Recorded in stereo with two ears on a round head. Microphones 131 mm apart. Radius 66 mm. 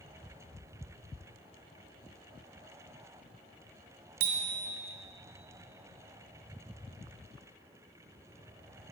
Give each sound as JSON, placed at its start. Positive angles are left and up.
{"t": 4.2, "sound": "a bicycle bell", "side_deg": -70, "distance_m": 2.0}